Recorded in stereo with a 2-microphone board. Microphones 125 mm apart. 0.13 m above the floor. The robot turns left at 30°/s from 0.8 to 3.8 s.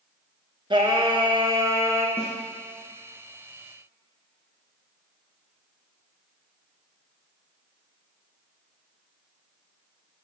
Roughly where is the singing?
Right.